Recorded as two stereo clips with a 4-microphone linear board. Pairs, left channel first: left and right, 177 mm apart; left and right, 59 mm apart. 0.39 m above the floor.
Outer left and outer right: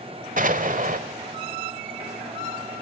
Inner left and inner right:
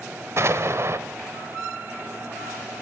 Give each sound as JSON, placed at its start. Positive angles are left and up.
{"t": 0.4, "sound": "an explosion", "side_deg": -50, "distance_m": 1.3}